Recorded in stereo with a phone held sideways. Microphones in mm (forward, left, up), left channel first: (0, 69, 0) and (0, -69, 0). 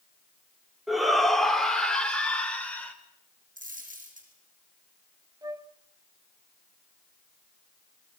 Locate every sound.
0.9 s a shout: centre (ahead or behind), 3 m; by 2.9 s 10° left (ahead or behind), 4.5 m
3.6 s a dropped coin: 80° right, 6.5 m
5.4 s a flute: 25° right (ahead or behind), 0.9 m